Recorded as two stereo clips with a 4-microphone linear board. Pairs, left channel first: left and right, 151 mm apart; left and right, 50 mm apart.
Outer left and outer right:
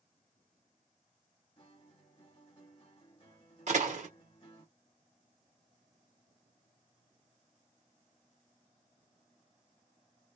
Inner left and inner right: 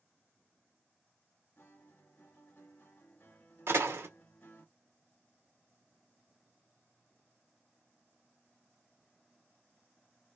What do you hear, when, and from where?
1.6 s a guitar: 40° left (ahead or behind), 1.3 m
3.7 s a door slam: 55° right (ahead or behind), 0.9 m